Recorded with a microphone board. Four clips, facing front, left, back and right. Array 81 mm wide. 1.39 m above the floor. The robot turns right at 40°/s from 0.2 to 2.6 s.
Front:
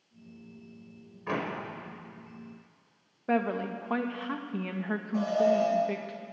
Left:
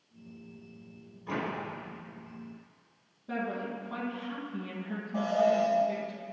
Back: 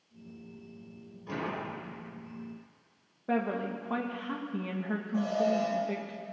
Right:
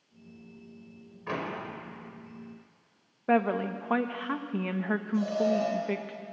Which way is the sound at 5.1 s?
75° left.